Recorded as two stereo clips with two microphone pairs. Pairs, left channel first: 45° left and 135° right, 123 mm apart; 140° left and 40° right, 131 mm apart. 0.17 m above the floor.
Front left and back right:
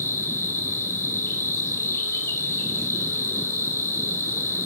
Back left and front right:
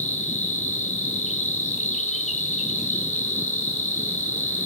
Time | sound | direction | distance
0.0 | an insect | 115° left | 1.3 m